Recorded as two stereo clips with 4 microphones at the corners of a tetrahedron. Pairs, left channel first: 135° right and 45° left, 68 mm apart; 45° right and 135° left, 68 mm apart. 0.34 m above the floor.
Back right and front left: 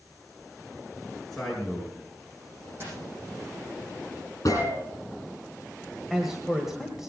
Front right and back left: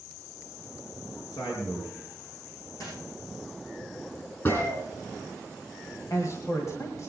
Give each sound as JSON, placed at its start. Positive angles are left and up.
{"t": 1.3, "sound": "a man speaking", "azimuth_deg": -50, "distance_m": 5.5}
{"t": 2.8, "sound": "a dropped coin", "azimuth_deg": -10, "distance_m": 8.5}
{"t": 4.5, "sound": "a gunshot", "azimuth_deg": -95, "distance_m": 6.0}
{"t": 6.1, "sound": "a man speaking", "azimuth_deg": -40, "distance_m": 1.7}